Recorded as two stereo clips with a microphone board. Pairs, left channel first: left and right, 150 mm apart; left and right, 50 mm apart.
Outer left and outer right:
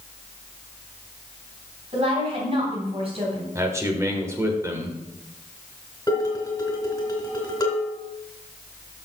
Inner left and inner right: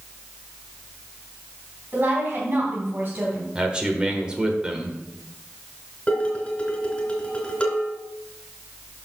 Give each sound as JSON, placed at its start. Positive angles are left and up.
{"t": 1.9, "sound": "a woman speaking", "side_deg": -40, "distance_m": 3.0}
{"t": 3.5, "sound": "a man speaking", "side_deg": -20, "distance_m": 1.2}
{"t": 6.1, "sound": "dishes clattering", "side_deg": 20, "distance_m": 3.0}